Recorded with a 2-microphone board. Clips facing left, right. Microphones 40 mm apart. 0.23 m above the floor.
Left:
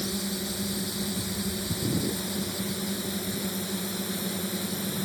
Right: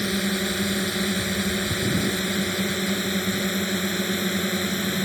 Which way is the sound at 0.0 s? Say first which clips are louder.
Right 7 dB; 55° right (ahead or behind).